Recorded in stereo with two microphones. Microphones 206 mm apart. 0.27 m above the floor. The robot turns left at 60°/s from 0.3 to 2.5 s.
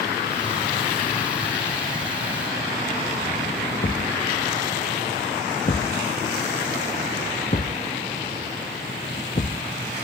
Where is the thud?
45° left (ahead or behind).